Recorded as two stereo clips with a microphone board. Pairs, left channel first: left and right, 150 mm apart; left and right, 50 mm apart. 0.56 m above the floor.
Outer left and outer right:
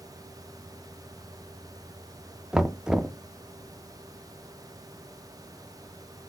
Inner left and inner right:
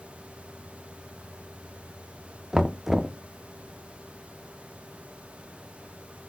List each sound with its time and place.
2.5 s knocking: 5° right (ahead or behind), 0.5 m